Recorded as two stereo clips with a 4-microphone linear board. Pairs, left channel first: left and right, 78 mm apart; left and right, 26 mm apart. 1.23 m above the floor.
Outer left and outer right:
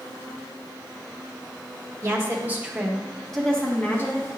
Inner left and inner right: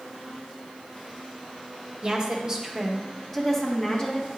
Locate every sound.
2.0 s a woman speaking: 35° right (ahead or behind), 1.4 m; by 4.3 s 30° left (ahead or behind), 1.4 m